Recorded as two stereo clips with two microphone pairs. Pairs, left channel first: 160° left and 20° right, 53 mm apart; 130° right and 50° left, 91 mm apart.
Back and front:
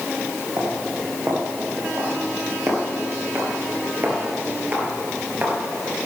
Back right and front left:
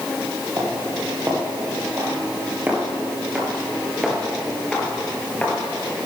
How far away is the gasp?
I don't hear a gasp.